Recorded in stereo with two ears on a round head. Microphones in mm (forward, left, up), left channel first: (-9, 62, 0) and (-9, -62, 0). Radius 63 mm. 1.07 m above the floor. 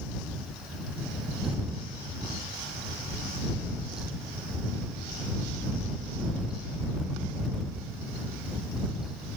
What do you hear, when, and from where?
Only background noise.